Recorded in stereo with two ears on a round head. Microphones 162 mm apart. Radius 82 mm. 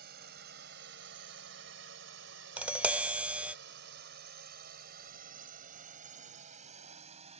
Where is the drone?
55° right (ahead or behind); by 7.4 s 35° right (ahead or behind).